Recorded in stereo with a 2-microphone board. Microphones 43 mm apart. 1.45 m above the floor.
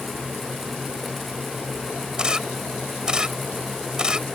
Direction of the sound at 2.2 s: 15° right (ahead or behind).